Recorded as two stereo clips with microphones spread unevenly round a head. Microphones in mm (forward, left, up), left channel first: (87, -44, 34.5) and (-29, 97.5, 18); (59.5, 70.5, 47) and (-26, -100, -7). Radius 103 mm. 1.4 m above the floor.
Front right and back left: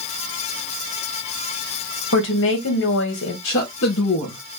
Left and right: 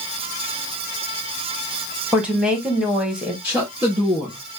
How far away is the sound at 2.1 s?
About 1.6 m.